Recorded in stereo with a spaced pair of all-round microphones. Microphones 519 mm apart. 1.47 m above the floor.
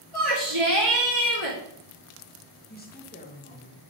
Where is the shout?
65° right (ahead or behind), 2.5 m.